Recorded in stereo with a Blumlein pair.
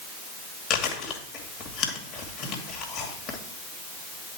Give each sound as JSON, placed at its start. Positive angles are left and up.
{"t": 0.7, "sound": "chewing", "azimuth_deg": 30, "distance_m": 1.9}